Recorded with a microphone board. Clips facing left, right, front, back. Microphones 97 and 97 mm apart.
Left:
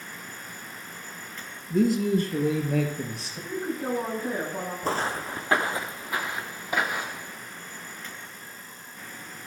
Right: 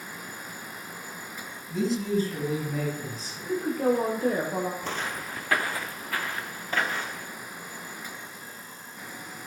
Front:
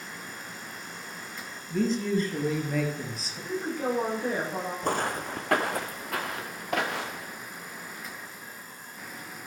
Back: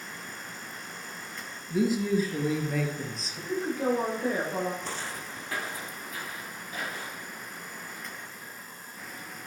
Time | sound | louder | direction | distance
1.7 | a man speaking | left 4 dB, back 1 dB | 105° left | 1.5 m
3.5 | a woman speaking | right 4 dB, back 1 dB | 95° right | 6 m
4.8 | footsteps | left 5 dB, front 8 dB | 40° left | 0.8 m